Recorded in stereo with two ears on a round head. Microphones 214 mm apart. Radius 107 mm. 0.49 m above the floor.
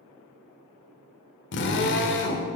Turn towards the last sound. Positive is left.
turn(degrees=50)  # may be behind; listen again after turning